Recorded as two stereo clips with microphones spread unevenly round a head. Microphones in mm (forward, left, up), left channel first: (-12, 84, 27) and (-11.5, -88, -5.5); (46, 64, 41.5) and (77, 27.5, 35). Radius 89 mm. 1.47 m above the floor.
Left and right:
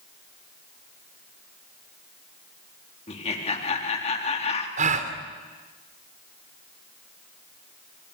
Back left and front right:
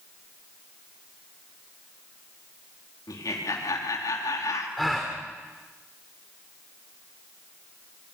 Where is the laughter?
145° left, 3.5 m.